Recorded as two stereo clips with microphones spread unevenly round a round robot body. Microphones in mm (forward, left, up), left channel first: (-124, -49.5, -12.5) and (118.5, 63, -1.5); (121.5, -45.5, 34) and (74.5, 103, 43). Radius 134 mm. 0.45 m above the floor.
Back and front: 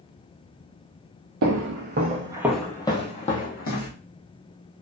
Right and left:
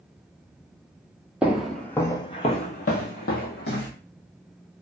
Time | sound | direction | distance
1.4 | footsteps | 30° left | 0.6 m